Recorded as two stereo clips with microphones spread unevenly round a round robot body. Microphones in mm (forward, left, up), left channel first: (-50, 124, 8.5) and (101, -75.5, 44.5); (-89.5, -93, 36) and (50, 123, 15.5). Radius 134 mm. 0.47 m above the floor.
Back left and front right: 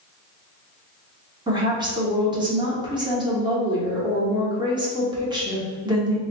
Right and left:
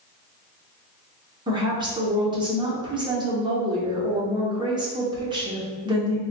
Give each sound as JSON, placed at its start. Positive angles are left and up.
{"t": 1.5, "sound": "a woman speaking", "azimuth_deg": 20, "distance_m": 0.8}